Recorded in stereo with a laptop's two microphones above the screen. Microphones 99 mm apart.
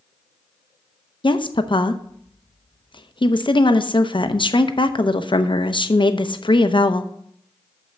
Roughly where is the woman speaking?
Left.